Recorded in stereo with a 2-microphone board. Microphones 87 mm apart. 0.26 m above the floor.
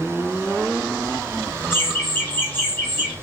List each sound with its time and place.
1.7 s laughter: 25° left (ahead or behind), 1.0 m; by 3.1 s 20° left (ahead or behind), 1.5 m